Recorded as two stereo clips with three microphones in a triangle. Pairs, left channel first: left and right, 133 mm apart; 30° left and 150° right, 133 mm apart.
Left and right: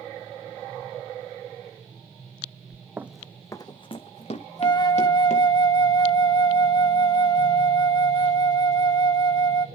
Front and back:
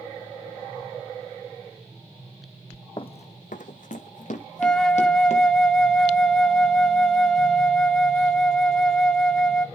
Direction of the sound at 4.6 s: 110° left.